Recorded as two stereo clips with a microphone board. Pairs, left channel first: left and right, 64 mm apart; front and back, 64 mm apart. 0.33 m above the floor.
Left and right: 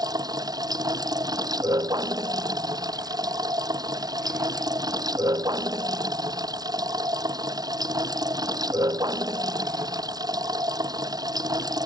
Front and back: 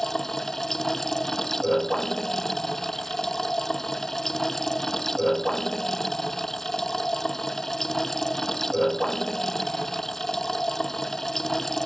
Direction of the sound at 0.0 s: 85° right.